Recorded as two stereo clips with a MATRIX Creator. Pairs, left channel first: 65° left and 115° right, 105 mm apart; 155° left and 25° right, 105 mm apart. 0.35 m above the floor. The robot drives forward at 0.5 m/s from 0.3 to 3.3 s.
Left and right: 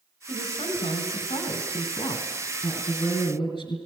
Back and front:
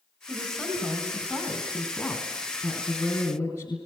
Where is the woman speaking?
80° left, 3 m; by 3.8 s 110° left, 3 m.